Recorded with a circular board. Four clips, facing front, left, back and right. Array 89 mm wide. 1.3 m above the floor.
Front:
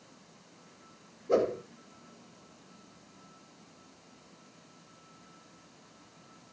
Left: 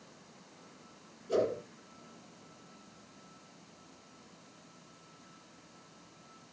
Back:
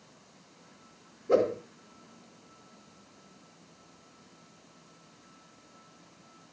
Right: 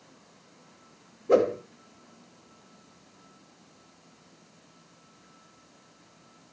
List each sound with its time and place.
1.3 s a whoosh: 105° right, 2.5 m